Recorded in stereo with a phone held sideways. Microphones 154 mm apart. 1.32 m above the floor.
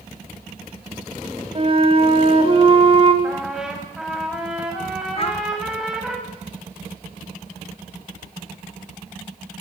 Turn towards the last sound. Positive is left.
turn(degrees=40)  # may be behind; listen again after turning